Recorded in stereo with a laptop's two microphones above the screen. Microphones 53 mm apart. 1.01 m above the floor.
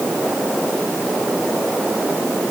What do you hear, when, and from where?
Only background noise.